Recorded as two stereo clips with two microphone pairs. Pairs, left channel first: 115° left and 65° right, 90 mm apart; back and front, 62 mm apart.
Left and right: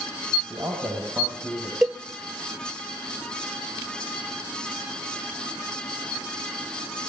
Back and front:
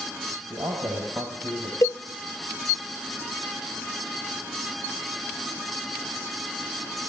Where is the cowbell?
150° right, 0.6 m.